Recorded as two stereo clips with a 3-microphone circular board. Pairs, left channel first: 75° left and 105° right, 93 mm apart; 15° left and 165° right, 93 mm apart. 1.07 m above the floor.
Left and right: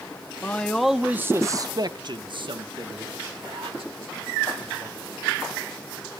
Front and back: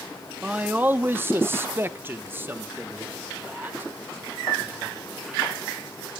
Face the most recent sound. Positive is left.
turn(degrees=-95)